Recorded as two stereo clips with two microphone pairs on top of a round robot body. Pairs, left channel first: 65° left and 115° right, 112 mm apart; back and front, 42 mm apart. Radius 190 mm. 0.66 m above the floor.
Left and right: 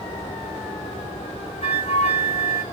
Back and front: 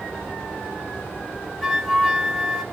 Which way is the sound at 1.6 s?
100° left.